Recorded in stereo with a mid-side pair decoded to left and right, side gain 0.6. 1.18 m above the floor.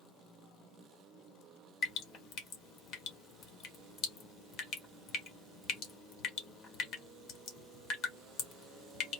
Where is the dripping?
60° left, 1.3 m.